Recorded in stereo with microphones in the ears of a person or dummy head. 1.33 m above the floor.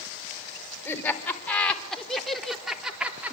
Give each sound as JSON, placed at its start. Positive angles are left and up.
{"t": 0.8, "sound": "laughter", "side_deg": 10, "distance_m": 4.0}